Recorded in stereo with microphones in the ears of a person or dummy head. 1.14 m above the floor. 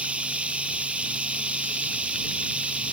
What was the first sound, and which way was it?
Running water, 5° right (ahead or behind).